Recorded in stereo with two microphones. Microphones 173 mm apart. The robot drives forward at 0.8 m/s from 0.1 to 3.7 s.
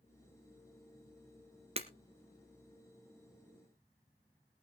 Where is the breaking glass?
35° right (ahead or behind), 1.5 m.